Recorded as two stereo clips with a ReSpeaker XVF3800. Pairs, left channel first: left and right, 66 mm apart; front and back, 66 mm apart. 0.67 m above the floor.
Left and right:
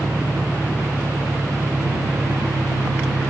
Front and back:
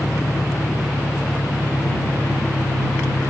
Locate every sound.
0.0 s an engine running: 25° right